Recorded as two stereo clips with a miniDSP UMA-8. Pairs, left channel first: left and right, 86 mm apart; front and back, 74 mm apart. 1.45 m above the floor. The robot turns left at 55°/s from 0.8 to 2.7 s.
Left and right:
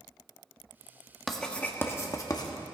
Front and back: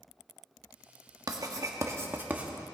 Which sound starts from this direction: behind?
Writing, at 1.3 s.